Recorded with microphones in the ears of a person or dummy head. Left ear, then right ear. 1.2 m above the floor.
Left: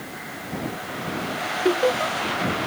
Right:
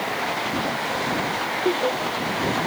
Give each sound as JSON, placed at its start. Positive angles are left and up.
{"t": 1.6, "sound": "laughter", "side_deg": 55}